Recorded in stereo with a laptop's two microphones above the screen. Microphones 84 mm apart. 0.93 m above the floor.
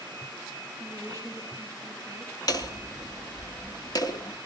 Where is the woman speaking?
40° left (ahead or behind), 4.5 m.